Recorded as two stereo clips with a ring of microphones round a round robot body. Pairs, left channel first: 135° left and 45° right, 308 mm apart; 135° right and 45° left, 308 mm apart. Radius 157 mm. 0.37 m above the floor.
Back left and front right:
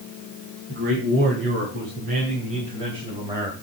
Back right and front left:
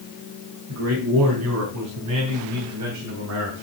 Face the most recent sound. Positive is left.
turn(degrees=35)